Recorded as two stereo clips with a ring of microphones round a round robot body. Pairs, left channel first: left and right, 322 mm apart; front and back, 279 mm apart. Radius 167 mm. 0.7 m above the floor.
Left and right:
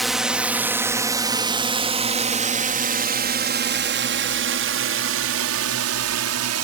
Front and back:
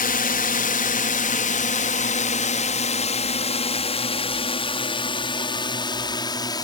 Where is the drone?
Straight ahead; by 6.6 s 75° right.